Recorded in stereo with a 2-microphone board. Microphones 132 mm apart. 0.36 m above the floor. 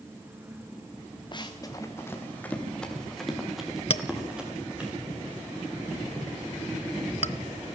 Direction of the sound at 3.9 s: 45° left (ahead or behind).